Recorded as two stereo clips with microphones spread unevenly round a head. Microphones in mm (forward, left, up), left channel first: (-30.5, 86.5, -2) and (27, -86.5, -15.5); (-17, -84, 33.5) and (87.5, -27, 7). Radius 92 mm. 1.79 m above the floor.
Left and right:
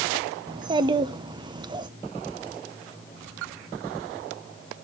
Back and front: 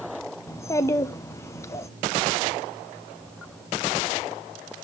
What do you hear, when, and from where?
0.5 s a child speaking: 130° right, 0.8 m